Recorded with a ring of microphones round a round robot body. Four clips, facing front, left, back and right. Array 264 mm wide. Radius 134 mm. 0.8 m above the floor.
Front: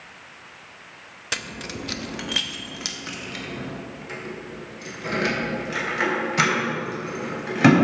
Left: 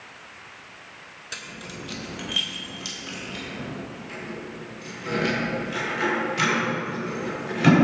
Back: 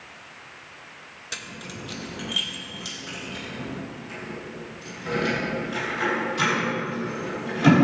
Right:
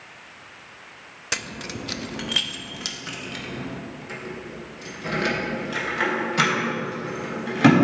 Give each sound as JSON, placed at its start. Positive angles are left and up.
{"t": 1.3, "sound": "keys jangling", "azimuth_deg": -50, "distance_m": 0.5}